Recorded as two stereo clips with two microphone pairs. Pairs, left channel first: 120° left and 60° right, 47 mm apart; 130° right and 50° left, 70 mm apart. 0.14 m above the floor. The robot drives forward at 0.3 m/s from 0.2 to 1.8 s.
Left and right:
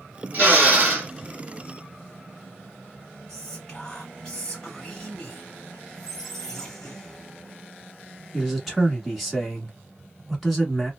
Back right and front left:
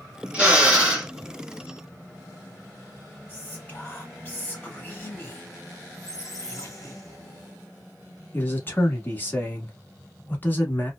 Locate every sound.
0.3 s a drill: 20° right, 1.2 m; by 1.1 s 25° right, 1.1 m
3.3 s whispering: 170° right, 1.7 m
5.9 s a squeak: 160° right, 1.4 m
8.3 s a man speaking: 145° right, 1.2 m